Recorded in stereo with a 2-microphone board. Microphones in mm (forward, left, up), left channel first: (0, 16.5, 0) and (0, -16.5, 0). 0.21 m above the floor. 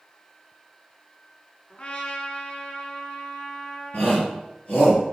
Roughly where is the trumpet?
Left.